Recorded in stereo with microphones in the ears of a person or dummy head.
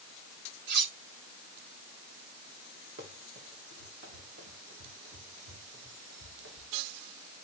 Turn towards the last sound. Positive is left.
turn(degrees=-65)  # may be behind; listen again after turning